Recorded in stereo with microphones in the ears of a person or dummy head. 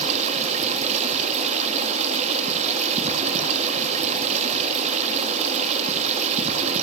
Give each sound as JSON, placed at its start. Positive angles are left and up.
{"t": 0.0, "sound": "running water", "side_deg": -35, "distance_m": 2.5}